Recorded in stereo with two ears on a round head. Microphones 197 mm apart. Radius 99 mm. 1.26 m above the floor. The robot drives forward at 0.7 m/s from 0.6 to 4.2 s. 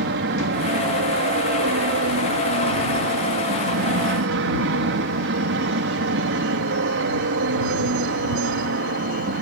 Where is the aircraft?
55° right (ahead or behind); by 9.4 s 60° right (ahead or behind).